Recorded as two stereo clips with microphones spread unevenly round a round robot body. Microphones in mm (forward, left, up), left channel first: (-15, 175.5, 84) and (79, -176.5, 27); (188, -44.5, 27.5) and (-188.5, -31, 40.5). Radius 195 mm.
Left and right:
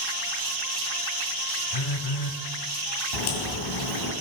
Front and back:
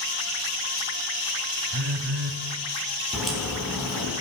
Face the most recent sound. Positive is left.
turn(degrees=90)